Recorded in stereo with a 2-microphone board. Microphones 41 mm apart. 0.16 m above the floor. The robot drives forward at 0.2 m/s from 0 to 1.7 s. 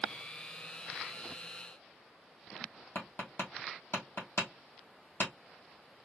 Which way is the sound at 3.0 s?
75° left (ahead or behind).